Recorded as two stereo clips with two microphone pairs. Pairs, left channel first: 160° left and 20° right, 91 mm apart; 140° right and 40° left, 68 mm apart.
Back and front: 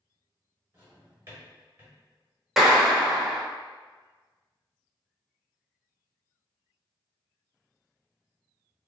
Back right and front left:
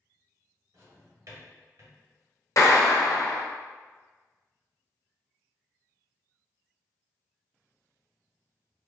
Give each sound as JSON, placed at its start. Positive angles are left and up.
{"t": 0.7, "sound": "a drawer", "azimuth_deg": 35, "distance_m": 1.8}
{"t": 2.6, "sound": "a clap", "azimuth_deg": -105, "distance_m": 0.8}